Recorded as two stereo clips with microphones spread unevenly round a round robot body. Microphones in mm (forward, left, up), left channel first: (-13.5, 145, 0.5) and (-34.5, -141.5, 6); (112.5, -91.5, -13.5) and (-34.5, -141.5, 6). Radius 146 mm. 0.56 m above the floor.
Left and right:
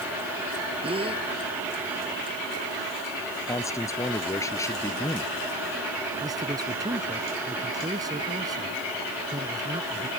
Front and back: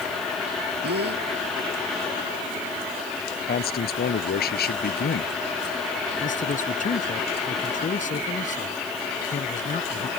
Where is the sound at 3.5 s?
5° left.